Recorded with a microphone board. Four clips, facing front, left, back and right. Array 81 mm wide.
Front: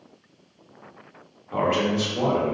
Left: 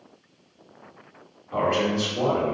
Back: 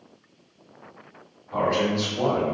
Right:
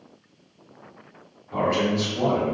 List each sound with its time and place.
1.5 s a man speaking: 20° left, 1.3 m